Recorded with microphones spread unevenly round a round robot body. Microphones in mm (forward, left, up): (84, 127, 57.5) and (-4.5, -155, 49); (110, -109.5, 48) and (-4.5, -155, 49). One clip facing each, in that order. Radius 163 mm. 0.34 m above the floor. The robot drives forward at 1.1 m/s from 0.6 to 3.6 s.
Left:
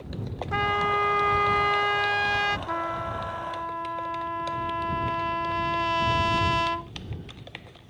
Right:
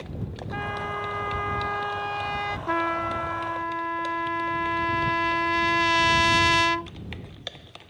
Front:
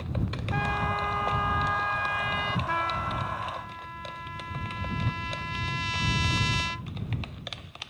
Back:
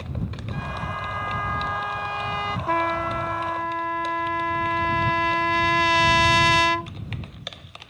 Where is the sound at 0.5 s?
55° left; by 2.6 s 140° left.